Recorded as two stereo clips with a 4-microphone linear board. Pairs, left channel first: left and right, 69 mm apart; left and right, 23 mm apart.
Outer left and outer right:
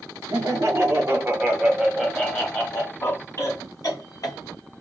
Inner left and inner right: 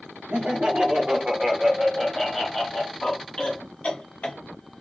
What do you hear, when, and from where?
0.3 s laughter: 45° right (ahead or behind), 1.5 m; by 4.4 s 60° left (ahead or behind), 2.0 m